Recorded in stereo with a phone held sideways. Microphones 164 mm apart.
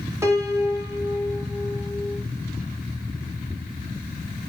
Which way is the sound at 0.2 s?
15° right (ahead or behind).